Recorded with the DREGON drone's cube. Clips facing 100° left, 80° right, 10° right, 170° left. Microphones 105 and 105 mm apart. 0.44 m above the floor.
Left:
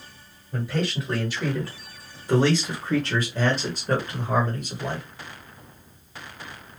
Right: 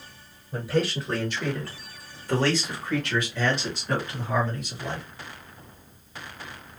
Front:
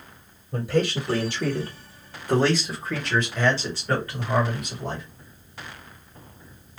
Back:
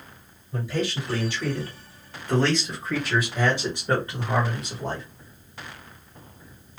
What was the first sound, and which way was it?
A man speaking, straight ahead.